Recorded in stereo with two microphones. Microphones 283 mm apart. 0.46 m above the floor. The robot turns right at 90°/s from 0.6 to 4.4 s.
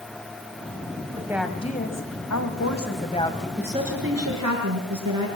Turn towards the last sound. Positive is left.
turn(degrees=-105)